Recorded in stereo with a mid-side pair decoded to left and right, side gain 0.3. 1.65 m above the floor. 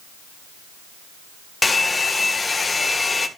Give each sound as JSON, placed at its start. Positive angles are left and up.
{"t": 1.6, "sound": "a hair dryer", "azimuth_deg": 35, "distance_m": 1.8}